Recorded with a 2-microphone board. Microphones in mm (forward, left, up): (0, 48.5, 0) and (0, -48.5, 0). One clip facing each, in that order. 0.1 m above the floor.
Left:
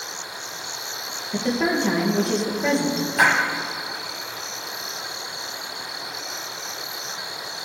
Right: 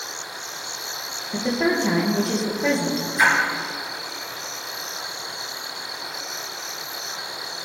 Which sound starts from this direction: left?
A splash, at 3.2 s.